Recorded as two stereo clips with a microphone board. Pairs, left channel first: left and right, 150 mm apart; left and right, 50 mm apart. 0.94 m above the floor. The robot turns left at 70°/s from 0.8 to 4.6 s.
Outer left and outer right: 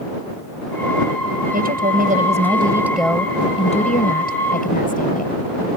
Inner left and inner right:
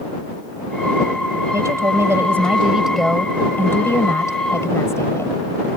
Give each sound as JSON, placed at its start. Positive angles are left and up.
{"t": 1.5, "sound": "a woman speaking", "azimuth_deg": -75}